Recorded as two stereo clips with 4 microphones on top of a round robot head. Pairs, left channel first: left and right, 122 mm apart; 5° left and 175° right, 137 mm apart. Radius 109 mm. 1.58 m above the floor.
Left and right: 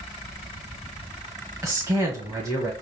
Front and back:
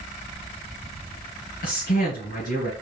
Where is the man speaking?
25° right, 1.7 m.